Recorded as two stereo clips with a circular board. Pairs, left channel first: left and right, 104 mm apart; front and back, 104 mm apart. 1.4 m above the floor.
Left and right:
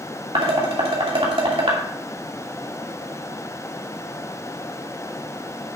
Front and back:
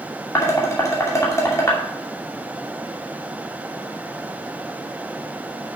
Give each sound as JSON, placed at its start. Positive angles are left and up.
{"t": 0.3, "sound": "dishes clattering", "azimuth_deg": -60, "distance_m": 2.5}